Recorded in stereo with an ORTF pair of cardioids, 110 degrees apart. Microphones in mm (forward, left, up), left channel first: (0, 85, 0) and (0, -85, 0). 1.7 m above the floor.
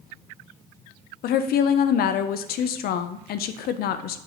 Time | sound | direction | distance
1.2 | a woman speaking | 65° left | 0.6 m